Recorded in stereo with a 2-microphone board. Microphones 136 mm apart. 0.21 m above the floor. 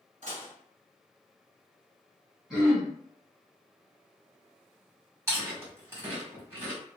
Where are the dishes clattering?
60° right (ahead or behind), 1.4 m.